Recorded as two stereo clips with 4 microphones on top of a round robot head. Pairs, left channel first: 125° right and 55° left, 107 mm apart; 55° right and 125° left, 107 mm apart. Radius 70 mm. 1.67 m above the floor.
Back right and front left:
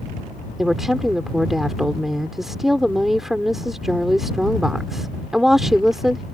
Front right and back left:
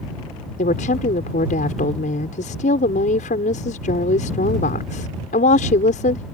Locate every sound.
0.6 s a woman speaking: 35° right